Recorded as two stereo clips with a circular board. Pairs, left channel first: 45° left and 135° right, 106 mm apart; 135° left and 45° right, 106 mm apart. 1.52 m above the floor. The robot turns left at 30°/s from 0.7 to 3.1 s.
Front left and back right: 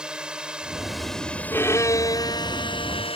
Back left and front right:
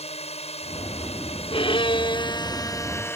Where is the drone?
140° left; by 3.2 s 70° left.